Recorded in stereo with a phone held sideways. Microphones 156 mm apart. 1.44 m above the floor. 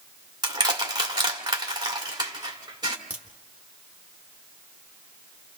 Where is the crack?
10° right (ahead or behind), 2 m.